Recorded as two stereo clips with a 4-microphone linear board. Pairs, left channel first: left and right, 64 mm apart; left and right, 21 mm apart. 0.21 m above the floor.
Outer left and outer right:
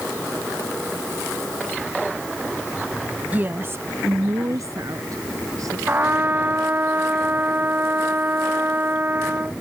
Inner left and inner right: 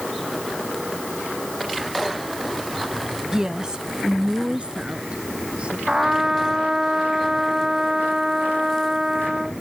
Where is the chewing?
I don't hear chewing.